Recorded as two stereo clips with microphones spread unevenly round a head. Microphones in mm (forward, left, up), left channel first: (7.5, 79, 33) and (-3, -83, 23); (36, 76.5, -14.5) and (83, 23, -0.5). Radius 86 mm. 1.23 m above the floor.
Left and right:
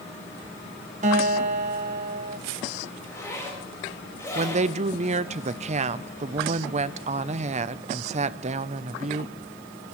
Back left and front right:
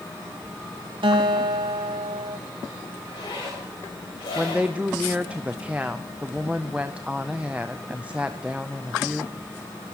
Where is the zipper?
160° left, 4.5 m.